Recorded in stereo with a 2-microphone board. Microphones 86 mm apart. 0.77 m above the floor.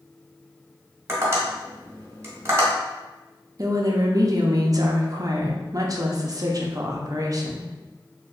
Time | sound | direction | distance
1.1 | tapping | 35° right (ahead or behind) | 1.3 m
3.6 | a woman speaking | 45° right (ahead or behind) | 0.6 m